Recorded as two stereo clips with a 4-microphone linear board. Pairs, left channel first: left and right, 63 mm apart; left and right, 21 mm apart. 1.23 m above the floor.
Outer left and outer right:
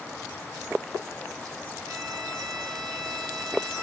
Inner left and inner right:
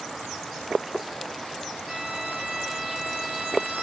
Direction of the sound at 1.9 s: 85° right.